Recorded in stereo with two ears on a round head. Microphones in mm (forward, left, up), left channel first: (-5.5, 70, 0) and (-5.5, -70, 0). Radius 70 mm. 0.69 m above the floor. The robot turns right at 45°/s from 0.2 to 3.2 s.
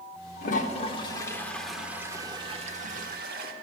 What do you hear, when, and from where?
0.4 s a toilet flushing: 125° left, 1.0 m; by 3.5 s 110° right, 1.0 m